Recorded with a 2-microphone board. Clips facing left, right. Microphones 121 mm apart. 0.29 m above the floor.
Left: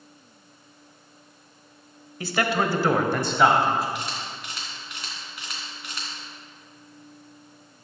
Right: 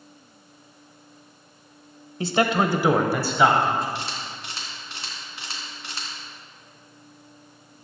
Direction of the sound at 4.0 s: 30° right (ahead or behind).